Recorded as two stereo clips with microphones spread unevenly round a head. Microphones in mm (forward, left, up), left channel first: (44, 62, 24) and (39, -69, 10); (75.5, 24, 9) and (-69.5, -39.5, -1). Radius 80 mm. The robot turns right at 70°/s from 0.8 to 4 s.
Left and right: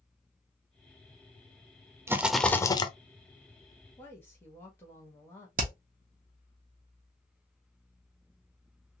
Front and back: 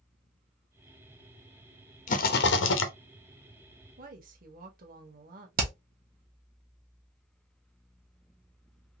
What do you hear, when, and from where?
2.1 s a rattle: 20° right, 0.7 m; by 2.9 s 40° left, 0.7 m
4.0 s a woman speaking: 165° left, 1.3 m
5.6 s hammering: 125° right, 1.1 m